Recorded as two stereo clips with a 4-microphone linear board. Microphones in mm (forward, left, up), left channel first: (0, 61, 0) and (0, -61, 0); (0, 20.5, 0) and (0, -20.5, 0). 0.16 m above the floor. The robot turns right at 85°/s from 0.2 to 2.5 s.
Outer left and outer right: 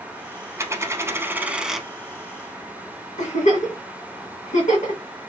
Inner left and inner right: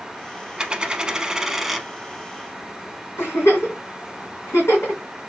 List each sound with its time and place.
0.6 s a dropped coin: 25° right (ahead or behind), 0.6 m; by 1.9 s centre (ahead or behind), 0.6 m
3.2 s a giggle: 80° left, 2 m